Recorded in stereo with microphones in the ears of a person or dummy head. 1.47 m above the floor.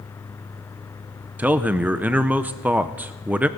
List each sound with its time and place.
1.4 s a man speaking: 5° right (ahead or behind), 0.5 m